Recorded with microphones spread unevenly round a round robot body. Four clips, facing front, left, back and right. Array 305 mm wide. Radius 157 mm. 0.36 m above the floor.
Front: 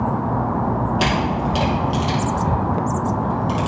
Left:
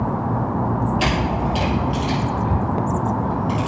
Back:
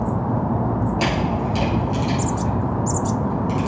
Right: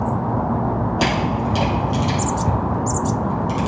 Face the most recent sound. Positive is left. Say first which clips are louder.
# right 1 dB, front 1 dB
turn(degrees=-50)